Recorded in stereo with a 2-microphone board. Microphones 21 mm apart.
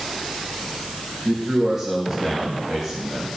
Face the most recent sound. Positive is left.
turn(degrees=0)  # may be behind; listen again after turning